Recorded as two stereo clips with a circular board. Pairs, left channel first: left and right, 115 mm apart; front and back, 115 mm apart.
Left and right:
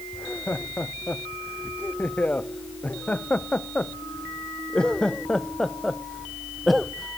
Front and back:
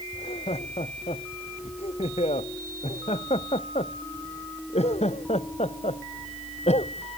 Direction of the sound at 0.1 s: 20° left.